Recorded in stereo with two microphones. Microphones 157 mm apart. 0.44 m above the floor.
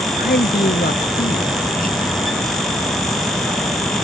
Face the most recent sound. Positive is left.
turn(degrees=60)  # may be behind; listen again after turning